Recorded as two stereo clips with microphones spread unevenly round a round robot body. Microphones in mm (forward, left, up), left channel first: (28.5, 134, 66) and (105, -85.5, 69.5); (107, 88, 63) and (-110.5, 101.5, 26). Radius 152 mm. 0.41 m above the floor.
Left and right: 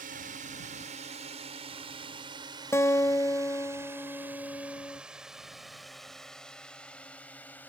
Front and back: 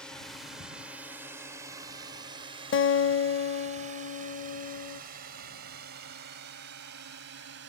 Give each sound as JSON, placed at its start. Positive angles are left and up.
{"t": 0.0, "sound": "a drone", "azimuth_deg": -100}
{"t": 2.7, "sound": "a guitar", "azimuth_deg": 30}